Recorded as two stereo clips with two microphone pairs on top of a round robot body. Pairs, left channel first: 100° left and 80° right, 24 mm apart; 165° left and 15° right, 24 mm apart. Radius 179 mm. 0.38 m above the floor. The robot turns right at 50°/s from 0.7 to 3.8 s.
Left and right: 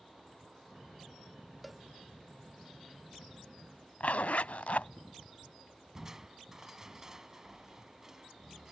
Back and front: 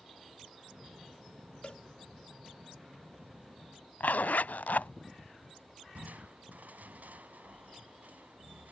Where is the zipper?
140° left.